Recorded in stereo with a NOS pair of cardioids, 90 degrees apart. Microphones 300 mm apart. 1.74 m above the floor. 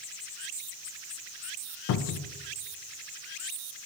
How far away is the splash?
No splash in this recording.